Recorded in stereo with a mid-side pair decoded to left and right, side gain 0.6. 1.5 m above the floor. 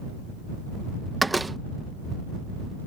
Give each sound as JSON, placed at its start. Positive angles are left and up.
{"t": 1.2, "sound": "a door slam", "azimuth_deg": -10}